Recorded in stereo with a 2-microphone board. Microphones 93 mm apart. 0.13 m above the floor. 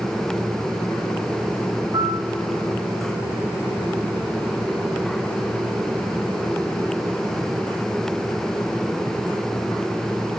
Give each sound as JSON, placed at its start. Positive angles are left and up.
{"t": 1.9, "sound": "a piano", "side_deg": -55, "distance_m": 3.0}